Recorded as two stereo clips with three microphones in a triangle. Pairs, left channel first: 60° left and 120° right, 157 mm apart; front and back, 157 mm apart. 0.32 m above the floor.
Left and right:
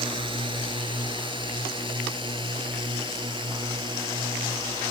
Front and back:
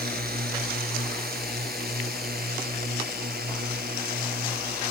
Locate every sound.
0.0 s a drone: 175° right; by 4.9 s straight behind